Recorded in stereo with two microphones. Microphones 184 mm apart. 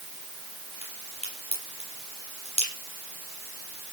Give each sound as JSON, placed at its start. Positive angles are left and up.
{"t": 0.8, "sound": "a crack", "side_deg": 35, "distance_m": 9.5}